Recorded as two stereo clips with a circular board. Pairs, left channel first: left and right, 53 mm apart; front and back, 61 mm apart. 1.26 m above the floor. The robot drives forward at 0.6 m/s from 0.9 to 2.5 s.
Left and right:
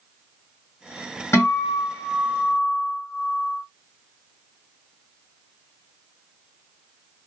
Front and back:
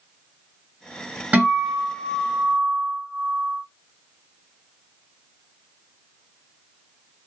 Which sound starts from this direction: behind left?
A guitar, at 1.3 s.